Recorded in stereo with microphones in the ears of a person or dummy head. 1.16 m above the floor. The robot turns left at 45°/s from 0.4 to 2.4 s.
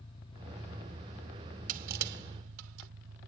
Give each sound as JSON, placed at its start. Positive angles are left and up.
{"t": 0.0, "sound": "an engine running", "azimuth_deg": 25}
{"t": 1.7, "sound": "crushing", "side_deg": -50}